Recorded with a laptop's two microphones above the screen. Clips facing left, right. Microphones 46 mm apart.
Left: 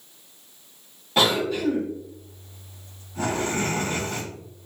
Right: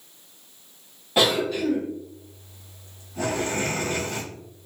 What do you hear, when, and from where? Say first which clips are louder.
1.2 s a cough: even; 10° right (ahead or behind), 1.3 m